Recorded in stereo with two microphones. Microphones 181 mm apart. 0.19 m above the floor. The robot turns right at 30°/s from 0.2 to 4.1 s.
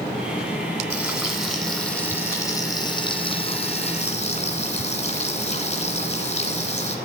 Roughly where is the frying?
Ahead.